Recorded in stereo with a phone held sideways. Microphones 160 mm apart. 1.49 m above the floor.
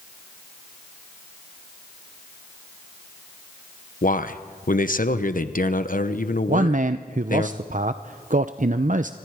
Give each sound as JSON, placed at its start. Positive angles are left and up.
{"t": 4.0, "sound": "a man speaking", "side_deg": 60, "distance_m": 1.0}
{"t": 6.5, "sound": "a man speaking", "side_deg": -55, "distance_m": 0.5}